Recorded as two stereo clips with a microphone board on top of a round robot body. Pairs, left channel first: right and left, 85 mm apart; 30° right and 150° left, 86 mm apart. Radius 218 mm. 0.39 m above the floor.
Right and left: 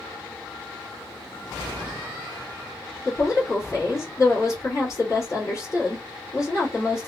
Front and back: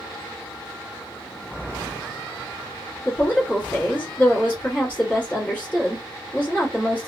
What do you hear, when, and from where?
3.0 s a woman speaking: 85° right, 1.5 m